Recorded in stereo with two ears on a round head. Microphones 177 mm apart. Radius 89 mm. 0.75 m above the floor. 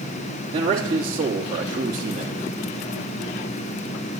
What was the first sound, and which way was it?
A man speaking, 30° right (ahead or behind).